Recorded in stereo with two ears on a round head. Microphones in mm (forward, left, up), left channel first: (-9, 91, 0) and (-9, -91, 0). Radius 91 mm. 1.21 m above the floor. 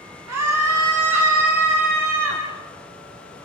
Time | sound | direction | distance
0.3 | a scream | 80° right | 3 m